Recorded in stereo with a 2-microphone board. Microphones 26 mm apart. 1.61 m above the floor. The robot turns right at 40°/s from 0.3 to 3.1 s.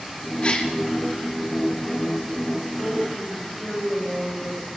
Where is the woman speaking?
75° left (ahead or behind), 9.5 m; by 4.6 s 60° left (ahead or behind), 9.5 m.